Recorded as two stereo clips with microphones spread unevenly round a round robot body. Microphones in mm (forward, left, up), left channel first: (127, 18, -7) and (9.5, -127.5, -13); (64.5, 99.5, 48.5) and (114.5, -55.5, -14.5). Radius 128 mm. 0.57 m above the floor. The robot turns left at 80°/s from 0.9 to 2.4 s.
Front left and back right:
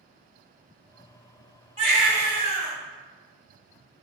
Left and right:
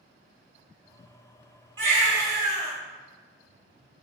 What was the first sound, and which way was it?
A baby crying, 70° right.